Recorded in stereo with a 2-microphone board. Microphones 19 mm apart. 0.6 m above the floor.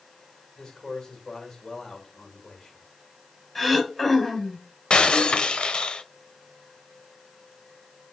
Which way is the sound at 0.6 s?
35° left (ahead or behind).